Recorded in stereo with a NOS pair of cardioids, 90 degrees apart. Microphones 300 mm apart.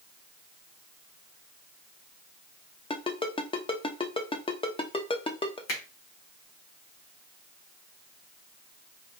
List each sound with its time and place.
2.9 s a ringtone: 15° left, 1.0 m
5.7 s a finger snap: 60° left, 2.5 m